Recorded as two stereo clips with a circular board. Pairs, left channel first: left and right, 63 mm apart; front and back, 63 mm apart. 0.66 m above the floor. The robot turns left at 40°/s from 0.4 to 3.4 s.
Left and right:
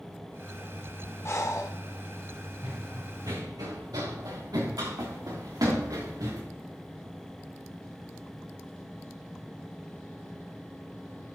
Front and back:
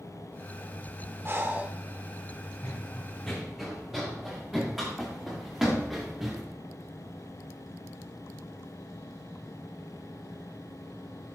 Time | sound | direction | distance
1.2 | breathing | 130° left | 1.2 m
2.6 | running footsteps | 60° right | 3 m